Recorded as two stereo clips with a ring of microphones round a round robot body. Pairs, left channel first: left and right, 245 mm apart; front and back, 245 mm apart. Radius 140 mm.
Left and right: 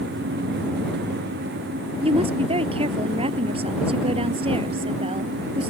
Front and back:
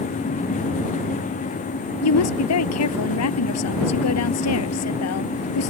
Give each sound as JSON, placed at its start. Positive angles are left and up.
{"t": 2.0, "sound": "a woman speaking", "azimuth_deg": -20}